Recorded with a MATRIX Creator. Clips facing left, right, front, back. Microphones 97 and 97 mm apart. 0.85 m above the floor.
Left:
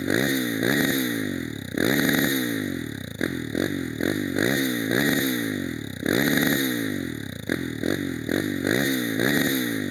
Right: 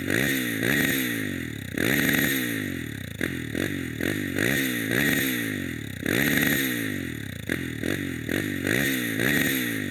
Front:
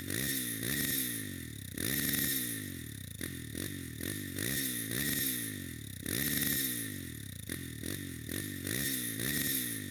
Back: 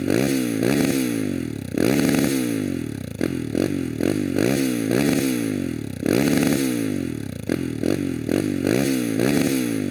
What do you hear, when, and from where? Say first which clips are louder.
0.0 s a motorcycle: left 3 dB, back 20 dB; 165° left